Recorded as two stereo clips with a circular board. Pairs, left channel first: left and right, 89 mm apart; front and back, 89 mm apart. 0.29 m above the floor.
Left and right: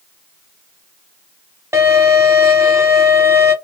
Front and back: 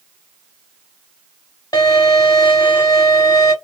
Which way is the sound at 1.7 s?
35° right.